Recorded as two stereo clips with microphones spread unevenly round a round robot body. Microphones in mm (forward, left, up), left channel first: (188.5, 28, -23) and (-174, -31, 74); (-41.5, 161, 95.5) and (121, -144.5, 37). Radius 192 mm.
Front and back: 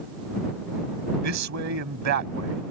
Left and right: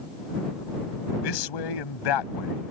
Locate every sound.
1.2 s a man speaking: 135° left